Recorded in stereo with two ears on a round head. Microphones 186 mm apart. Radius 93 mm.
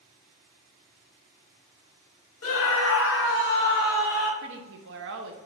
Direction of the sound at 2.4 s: 65° left (ahead or behind).